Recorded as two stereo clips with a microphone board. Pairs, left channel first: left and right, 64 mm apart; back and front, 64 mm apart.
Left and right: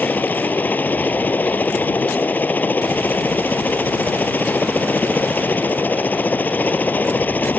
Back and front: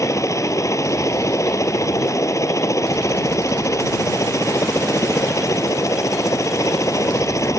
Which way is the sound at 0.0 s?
150° left.